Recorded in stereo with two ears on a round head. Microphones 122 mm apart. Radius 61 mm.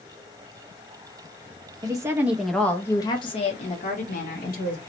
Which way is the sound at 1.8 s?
30° right (ahead or behind).